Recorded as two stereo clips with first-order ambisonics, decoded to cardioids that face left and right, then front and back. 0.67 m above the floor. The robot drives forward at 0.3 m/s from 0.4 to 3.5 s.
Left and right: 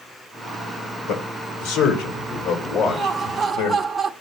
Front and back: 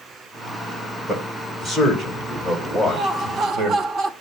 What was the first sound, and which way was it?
A man speaking, 105° left.